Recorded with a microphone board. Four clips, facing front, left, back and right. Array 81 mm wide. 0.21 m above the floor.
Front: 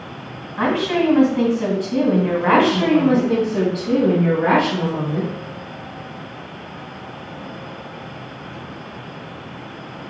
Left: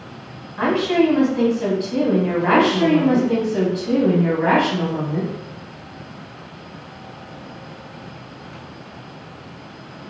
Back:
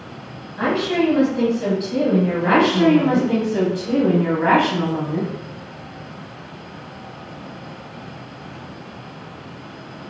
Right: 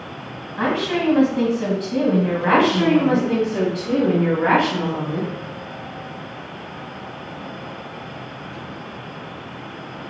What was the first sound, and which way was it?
A woman speaking, 20° right.